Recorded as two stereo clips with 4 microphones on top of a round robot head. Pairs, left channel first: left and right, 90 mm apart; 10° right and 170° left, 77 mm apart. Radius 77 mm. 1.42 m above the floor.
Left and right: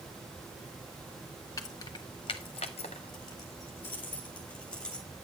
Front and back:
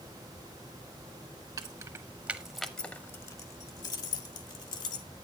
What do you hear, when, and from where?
1.6 s keys jangling: 135° left, 1.0 m; by 5.1 s 10° left, 1.8 m